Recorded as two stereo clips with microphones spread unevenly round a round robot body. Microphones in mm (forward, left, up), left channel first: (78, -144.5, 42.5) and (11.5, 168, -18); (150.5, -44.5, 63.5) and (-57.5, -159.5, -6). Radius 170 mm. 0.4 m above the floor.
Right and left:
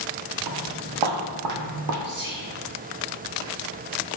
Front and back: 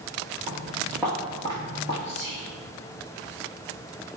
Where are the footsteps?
135° left, 1.2 m; by 1.9 s 60° left, 0.9 m.